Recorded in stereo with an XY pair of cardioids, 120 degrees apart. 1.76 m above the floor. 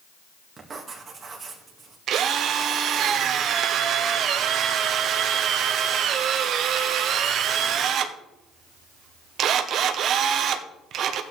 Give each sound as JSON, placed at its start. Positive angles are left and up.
{"t": 0.6, "sound": "writing", "azimuth_deg": -30, "distance_m": 2.5}
{"t": 2.1, "sound": "a drill", "azimuth_deg": -60, "distance_m": 1.1}